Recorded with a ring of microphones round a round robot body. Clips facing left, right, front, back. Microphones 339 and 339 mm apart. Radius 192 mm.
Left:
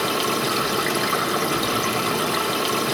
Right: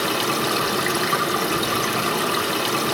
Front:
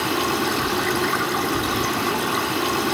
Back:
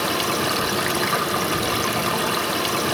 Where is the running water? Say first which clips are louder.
Even, front 2 dB; 175° right, 1.2 m.